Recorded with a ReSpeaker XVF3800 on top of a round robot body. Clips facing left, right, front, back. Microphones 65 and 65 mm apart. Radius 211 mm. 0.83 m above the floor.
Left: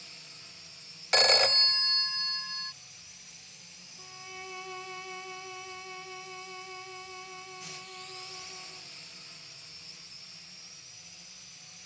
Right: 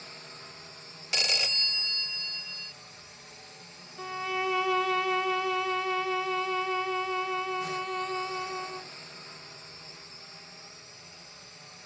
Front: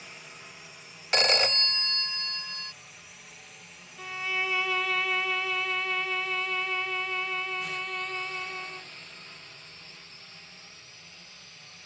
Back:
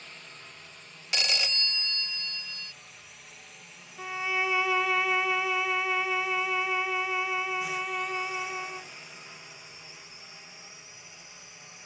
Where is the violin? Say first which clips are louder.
Right 15 dB, back 2 dB; 105° right.